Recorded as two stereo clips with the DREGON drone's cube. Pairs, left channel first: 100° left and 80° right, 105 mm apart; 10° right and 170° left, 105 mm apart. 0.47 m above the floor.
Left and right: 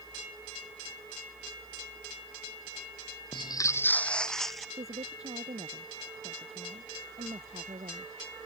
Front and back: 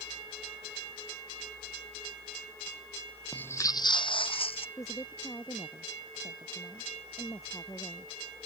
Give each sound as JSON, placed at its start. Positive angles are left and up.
{"t": 3.3, "sound": "footsteps", "azimuth_deg": 65}
{"t": 4.8, "sound": "a woman speaking", "azimuth_deg": -70}